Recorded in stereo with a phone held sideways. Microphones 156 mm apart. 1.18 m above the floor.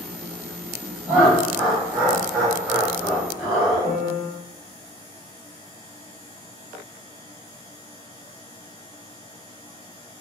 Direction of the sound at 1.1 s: Centre (ahead or behind).